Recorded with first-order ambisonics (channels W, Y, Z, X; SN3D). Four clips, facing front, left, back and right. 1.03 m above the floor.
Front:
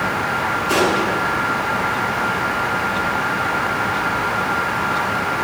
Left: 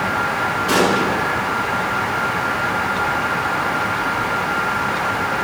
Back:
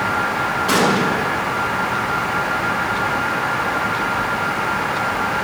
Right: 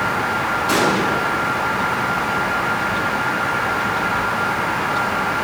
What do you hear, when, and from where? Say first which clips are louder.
0.7 s an explosion: left 1 dB, back 1 dB; 150° left, 9 m